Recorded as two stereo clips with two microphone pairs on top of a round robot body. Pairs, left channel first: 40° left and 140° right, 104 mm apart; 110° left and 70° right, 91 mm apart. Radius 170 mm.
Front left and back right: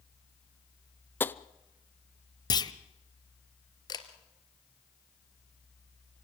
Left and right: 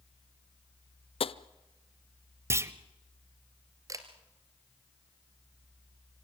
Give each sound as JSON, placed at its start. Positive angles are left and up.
{"t": 1.2, "sound": "tapping", "azimuth_deg": 110, "distance_m": 0.7}
{"t": 2.5, "sound": "a clunk", "azimuth_deg": -10, "distance_m": 1.1}
{"t": 3.9, "sound": "a camera shutter", "azimuth_deg": -15, "distance_m": 2.0}